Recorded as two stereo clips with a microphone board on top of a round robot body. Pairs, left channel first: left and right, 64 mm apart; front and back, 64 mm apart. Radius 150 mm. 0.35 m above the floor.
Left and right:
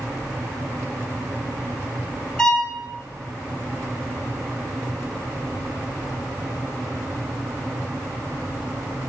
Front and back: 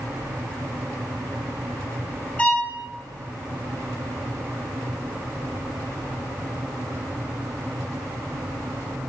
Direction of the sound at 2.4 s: 30° left.